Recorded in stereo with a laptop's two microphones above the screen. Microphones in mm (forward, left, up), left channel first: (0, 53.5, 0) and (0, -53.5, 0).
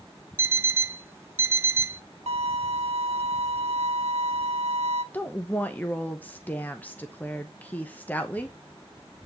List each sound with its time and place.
0.4 s an alarm clock: 25° right (ahead or behind), 0.6 m
2.3 s a violin: 75° right (ahead or behind), 0.9 m
5.1 s a woman speaking: 15° left (ahead or behind), 0.8 m